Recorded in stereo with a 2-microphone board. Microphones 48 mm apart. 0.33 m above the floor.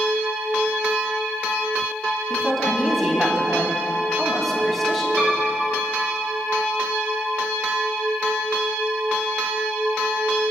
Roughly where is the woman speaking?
Centre.